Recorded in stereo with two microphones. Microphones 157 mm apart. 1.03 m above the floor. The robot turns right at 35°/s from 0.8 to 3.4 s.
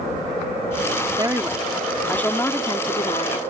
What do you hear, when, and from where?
1.2 s a woman speaking: 25° right; by 3.4 s 50° left